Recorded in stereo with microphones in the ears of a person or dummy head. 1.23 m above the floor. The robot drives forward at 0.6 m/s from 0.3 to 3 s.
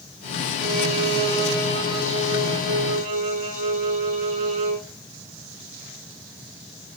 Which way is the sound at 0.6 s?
30° right (ahead or behind).